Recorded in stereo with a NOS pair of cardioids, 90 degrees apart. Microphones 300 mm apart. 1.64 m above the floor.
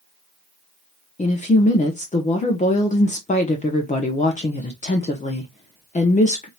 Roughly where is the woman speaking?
Ahead left.